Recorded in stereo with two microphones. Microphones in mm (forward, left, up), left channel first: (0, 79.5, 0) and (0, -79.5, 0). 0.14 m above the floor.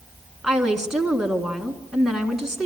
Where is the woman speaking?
5° right (ahead or behind), 1.4 m.